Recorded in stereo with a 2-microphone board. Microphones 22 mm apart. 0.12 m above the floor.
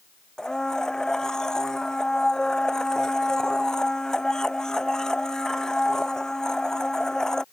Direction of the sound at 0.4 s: 25° left (ahead or behind).